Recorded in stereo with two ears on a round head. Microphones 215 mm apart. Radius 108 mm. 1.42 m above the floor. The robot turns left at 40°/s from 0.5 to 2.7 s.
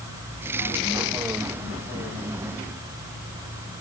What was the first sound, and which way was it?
Only background noise.